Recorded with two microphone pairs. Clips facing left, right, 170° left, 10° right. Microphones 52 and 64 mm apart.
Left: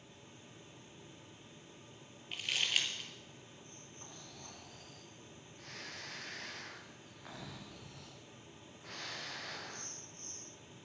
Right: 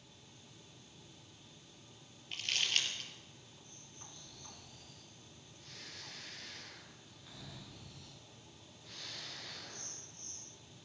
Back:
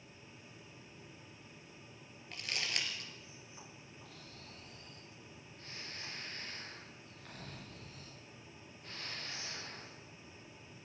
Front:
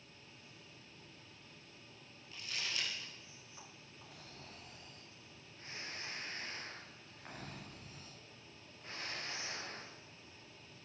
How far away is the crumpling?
About 3 m.